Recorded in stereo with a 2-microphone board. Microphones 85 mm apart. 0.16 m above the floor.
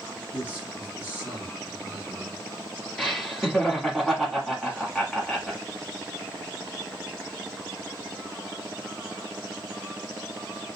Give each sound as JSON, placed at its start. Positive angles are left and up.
{"t": 0.3, "sound": "a man speaking", "side_deg": -20, "distance_m": 1.1}
{"t": 3.0, "sound": "laughter", "side_deg": 5, "distance_m": 1.1}